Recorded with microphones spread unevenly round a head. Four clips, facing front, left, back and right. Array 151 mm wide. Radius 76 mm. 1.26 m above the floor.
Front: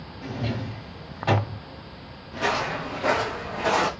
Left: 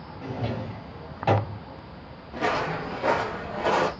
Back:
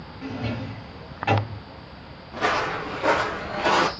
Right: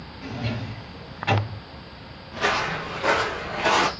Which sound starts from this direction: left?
A drawer, at 0.2 s.